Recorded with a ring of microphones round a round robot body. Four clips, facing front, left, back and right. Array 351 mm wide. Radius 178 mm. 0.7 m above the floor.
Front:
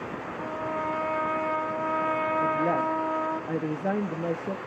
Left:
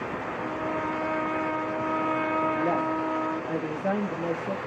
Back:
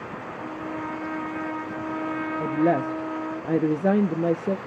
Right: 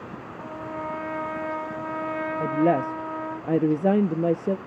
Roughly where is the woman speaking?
Behind right.